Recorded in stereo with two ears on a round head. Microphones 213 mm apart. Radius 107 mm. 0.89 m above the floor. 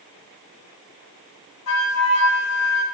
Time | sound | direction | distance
1.7 | a flute | 70° left (ahead or behind) | 2.5 m